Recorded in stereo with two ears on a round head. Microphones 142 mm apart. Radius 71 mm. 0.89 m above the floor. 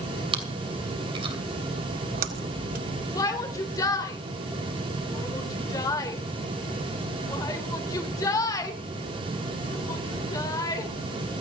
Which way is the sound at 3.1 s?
25° left (ahead or behind).